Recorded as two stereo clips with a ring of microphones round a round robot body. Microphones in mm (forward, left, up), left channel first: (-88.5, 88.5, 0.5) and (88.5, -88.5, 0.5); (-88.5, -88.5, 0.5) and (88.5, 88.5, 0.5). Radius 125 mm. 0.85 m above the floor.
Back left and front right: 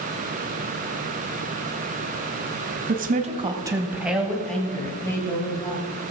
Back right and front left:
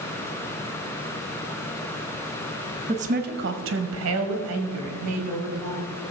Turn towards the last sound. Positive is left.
turn(degrees=60)